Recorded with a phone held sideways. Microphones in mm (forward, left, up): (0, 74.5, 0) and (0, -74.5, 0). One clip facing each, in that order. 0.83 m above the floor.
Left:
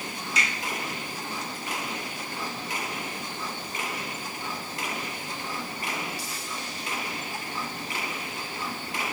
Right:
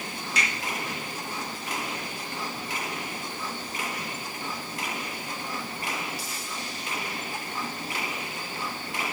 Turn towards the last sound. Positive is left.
turn(degrees=-70)  # may be behind; listen again after turning